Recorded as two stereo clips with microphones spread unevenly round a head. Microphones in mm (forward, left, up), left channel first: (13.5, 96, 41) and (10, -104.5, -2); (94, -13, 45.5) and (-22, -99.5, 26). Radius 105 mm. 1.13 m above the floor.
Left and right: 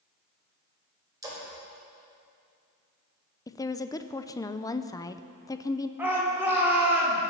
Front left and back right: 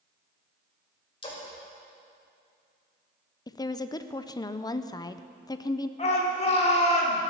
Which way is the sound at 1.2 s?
15° right.